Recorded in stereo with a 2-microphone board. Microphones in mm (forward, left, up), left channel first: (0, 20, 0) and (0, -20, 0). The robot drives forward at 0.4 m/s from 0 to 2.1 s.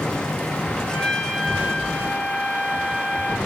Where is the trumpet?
Centre (ahead or behind), 1.3 m.